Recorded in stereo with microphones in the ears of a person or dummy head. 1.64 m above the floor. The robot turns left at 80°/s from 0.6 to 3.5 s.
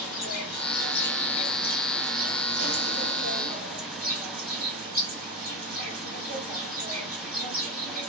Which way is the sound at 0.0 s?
95° left.